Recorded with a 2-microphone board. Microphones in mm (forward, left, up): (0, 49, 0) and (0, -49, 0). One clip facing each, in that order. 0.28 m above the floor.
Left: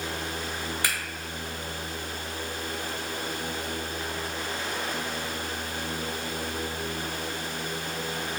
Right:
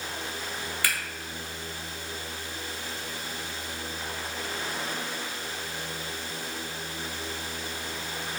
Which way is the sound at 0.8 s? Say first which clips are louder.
Right 1 dB; 20° left (ahead or behind).